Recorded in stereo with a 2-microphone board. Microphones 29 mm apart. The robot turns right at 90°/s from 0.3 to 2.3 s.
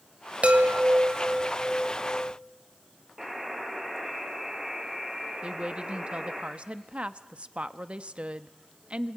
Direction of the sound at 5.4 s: 40° right (ahead or behind).